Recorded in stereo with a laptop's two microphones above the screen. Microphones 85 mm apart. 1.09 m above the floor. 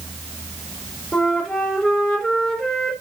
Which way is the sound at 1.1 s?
10° left (ahead or behind).